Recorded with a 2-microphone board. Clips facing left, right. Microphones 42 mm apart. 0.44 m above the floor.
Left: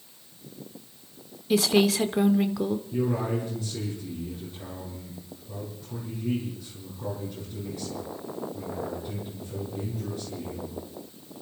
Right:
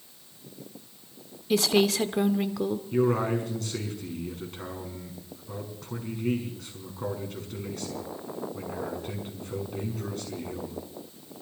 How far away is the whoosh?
No whoosh in this recording.